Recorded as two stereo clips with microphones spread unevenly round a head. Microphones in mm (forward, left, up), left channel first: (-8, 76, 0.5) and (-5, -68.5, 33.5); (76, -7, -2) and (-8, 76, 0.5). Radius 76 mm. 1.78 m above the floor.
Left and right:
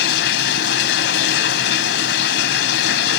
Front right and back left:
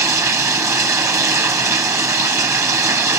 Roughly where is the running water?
Left.